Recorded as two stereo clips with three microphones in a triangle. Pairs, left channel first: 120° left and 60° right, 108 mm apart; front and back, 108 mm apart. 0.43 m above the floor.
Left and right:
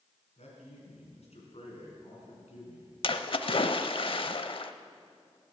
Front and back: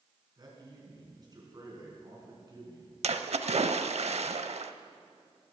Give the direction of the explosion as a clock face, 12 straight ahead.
No explosion in this recording.